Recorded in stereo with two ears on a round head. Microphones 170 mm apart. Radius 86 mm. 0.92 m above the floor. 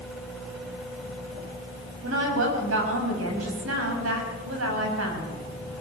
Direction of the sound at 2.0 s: 80° right.